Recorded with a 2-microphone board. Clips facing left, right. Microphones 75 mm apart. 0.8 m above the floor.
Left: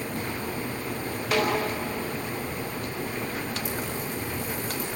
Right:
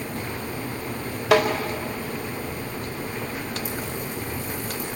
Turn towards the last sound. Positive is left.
turn(degrees=-75)  # may be behind; listen again after turning